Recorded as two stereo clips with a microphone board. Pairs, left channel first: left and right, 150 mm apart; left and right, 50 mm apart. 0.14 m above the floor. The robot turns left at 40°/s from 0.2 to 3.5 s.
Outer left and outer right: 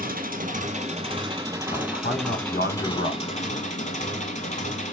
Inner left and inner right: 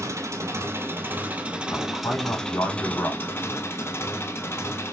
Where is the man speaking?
115° left, 4.5 m; by 3.4 s 45° left, 4.5 m.